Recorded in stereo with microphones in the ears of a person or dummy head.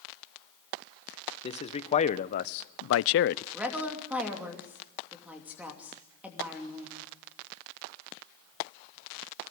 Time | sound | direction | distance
1.4 | a man speaking | 30° left (ahead or behind) | 1.4 m
3.5 | a woman speaking | 5° right (ahead or behind) | 3 m